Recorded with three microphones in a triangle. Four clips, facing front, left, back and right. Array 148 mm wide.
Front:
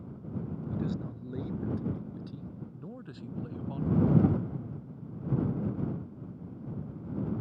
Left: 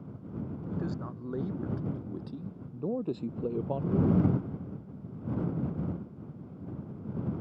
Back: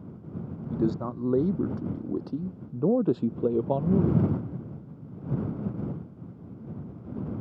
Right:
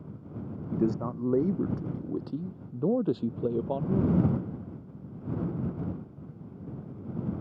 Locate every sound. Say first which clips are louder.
0.7 s a man speaking: right 10 dB, back 10 dB; 140° right; by 4.2 s straight behind